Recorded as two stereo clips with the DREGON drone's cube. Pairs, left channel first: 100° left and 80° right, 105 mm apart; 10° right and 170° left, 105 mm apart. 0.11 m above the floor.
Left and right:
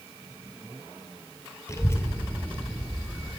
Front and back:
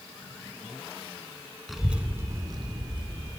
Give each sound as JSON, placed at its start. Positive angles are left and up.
{"t": 1.7, "sound": "a child speaking", "azimuth_deg": 80, "distance_m": 1.1}